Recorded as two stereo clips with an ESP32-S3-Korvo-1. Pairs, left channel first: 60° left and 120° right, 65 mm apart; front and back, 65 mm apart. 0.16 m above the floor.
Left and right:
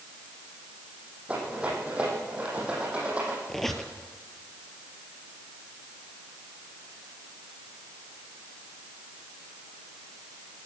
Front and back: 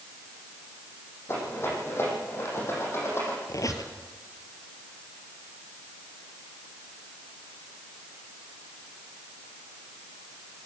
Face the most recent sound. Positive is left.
turn(degrees=-25)